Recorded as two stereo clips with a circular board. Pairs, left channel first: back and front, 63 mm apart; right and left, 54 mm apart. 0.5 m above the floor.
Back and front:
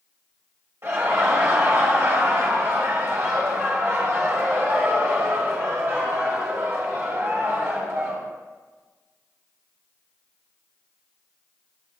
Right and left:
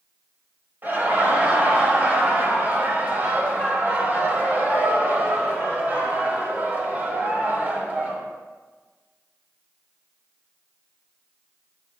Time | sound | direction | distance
0.8 | laughter | 40° left | 2 m